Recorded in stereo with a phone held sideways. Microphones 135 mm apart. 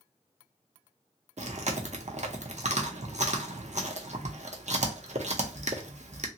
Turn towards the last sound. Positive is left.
turn(degrees=-55)  # may be behind; listen again after turning